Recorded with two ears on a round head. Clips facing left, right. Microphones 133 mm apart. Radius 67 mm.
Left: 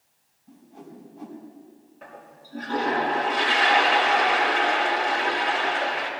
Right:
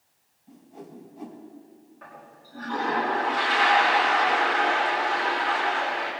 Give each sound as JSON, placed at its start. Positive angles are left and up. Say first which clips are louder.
{"t": 0.5, "sound": "a whoosh", "louder": "right 1 dB", "side_deg": -15, "distance_m": 3.5}
{"t": 2.0, "sound": "a toilet flushing", "louder": "left 3 dB", "side_deg": 30, "distance_m": 4.5}